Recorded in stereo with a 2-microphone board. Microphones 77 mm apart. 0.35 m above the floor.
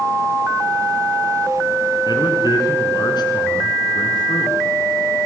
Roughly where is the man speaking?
Left.